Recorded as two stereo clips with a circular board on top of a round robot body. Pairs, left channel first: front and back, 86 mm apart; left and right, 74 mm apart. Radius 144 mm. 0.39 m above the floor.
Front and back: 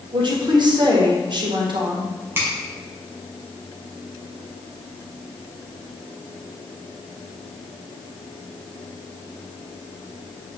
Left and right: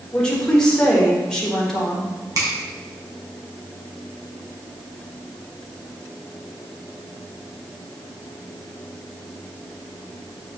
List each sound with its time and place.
0.1 s a woman speaking: 170° left, 1.7 m
2.4 s a finger snap: 120° right, 2.5 m